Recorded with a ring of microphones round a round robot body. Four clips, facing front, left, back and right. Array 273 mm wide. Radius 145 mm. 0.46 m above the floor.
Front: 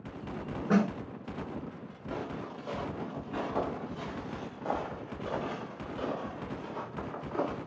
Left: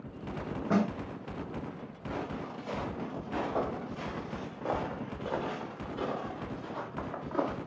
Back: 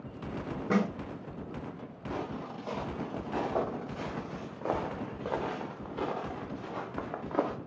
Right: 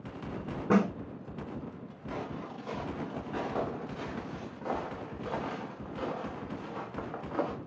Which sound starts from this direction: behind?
Footsteps, at 2.1 s.